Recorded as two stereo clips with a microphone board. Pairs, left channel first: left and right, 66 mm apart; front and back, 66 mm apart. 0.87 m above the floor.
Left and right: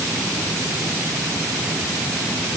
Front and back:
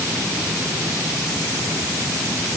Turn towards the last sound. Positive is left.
No sound to turn to.